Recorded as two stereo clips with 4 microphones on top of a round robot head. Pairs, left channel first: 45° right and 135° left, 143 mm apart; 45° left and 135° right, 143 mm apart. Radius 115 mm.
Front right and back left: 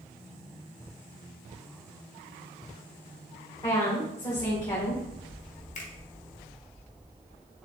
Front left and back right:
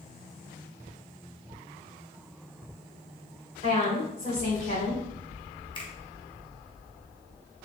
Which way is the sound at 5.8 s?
10° right.